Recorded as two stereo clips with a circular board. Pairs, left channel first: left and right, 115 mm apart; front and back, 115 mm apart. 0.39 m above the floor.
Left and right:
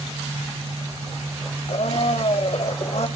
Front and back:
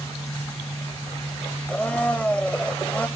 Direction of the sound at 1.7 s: 75° left.